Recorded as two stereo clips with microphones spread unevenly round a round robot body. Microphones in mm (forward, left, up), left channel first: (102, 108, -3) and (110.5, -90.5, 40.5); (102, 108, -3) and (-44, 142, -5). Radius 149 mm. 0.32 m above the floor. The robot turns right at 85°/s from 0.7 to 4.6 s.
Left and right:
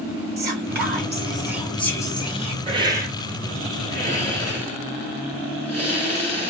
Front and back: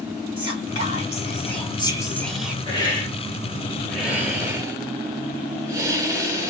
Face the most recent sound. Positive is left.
turn(degrees=135)